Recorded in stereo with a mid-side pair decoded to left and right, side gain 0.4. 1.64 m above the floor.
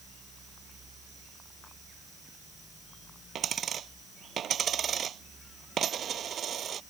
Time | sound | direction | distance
3.4 | a dropped coin | 60° right | ?